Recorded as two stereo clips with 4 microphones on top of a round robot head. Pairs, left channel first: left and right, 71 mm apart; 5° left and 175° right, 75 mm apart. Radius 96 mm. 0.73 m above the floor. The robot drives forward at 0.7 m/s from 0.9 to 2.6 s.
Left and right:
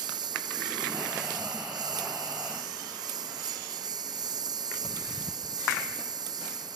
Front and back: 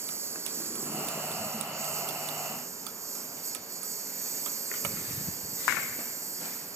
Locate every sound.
0.0 s a lawn mower: 120° right; by 6.8 s 125° right